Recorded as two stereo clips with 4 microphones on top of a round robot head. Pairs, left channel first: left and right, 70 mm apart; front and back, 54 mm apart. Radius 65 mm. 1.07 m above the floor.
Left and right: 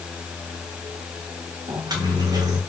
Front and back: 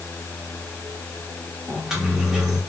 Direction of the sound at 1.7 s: 100° right.